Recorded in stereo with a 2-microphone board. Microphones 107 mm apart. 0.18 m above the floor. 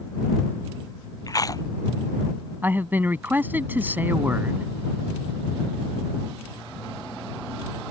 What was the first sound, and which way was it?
Chewing, 35° left (ahead or behind).